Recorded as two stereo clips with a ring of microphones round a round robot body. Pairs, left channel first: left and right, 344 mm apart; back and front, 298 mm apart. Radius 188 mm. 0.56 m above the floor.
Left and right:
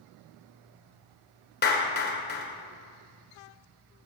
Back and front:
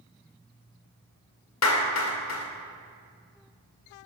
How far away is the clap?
About 2.5 m.